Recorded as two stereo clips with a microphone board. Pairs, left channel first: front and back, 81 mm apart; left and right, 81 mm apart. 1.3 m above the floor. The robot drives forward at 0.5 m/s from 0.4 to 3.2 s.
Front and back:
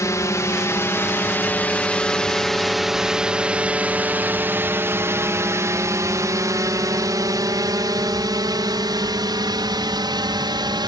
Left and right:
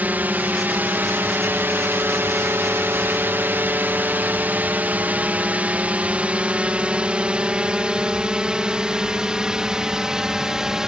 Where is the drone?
30° right; by 10.9 s 170° right.